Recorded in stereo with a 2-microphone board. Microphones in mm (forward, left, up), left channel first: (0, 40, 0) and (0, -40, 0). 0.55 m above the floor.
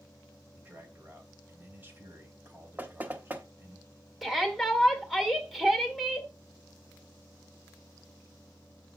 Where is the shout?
Centre (ahead or behind), 2 m.